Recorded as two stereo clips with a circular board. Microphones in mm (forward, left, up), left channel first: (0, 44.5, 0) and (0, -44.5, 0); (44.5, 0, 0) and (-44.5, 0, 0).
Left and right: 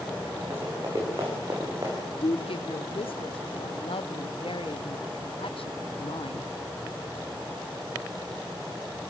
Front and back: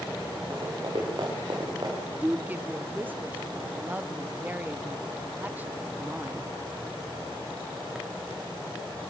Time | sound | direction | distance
0.5 | running footsteps | 145° right | 9 m
2.2 | a woman speaking | 110° left | 0.9 m